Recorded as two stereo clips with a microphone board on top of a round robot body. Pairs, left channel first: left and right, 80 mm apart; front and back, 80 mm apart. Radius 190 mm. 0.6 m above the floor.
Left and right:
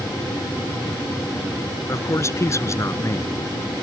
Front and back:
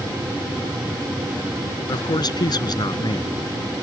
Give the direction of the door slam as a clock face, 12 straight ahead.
No door slam in this recording.